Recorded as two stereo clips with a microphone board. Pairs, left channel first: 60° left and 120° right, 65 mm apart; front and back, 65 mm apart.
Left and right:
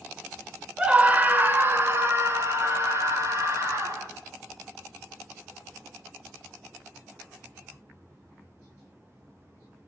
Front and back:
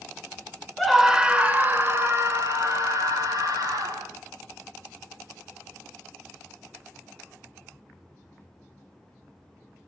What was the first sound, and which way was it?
A scream, 80° right.